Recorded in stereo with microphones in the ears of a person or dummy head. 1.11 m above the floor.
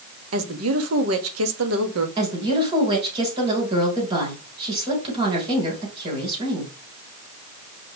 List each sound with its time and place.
0.3 s a woman speaking: 75° right (ahead or behind), 1.6 m
2.2 s a woman speaking: 25° right (ahead or behind), 4 m